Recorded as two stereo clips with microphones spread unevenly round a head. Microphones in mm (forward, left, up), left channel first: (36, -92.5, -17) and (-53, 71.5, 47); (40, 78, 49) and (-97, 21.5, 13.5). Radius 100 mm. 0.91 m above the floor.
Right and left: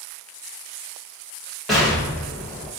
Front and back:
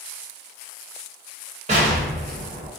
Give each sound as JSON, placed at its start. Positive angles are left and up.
{"t": 1.7, "sound": "an explosion", "azimuth_deg": -140, "distance_m": 1.1}